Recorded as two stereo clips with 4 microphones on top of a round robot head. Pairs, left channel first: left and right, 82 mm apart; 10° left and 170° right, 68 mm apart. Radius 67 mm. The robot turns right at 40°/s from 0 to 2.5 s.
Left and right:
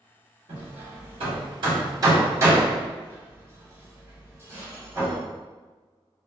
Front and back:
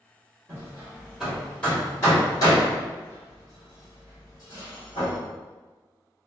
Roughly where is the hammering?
Behind right.